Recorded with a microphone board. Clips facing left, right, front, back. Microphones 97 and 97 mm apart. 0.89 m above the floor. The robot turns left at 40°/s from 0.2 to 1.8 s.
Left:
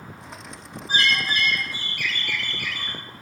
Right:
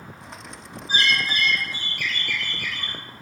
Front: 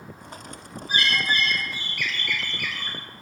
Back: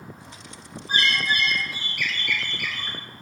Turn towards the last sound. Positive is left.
turn(degrees=95)